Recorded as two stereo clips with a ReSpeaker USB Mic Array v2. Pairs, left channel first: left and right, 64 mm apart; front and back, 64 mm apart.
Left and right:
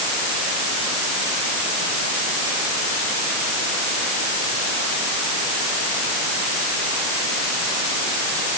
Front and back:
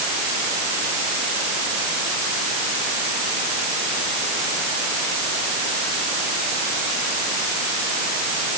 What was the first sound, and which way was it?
Only background noise.